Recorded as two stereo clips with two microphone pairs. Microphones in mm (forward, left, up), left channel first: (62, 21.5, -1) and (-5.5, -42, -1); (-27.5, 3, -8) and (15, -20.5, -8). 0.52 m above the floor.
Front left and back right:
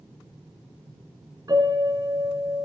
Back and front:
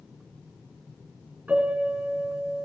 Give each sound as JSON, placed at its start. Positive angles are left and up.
{"t": 1.5, "sound": "a piano", "azimuth_deg": -95, "distance_m": 3.5}